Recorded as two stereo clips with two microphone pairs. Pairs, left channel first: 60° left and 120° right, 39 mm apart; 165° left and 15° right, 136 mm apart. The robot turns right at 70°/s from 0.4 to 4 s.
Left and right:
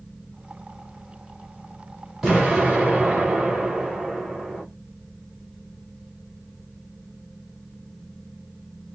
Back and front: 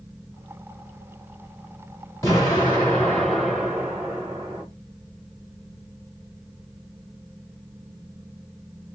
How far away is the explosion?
About 1.6 m.